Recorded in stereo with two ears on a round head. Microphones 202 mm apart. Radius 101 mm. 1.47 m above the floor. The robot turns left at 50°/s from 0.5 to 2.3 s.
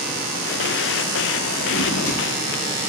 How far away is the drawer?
About 7.5 m.